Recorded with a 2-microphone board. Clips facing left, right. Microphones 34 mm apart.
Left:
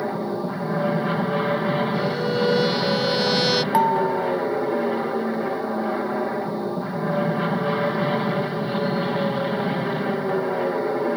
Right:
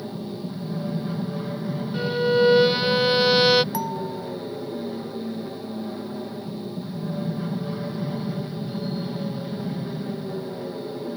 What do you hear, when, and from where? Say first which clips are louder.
0.0 s an aircraft: left 7 dB; 60° left (ahead or behind)
1.9 s a violin: right 2 dB; 20° right (ahead or behind)
3.7 s dishes clattering: left 10 dB; 40° left (ahead or behind)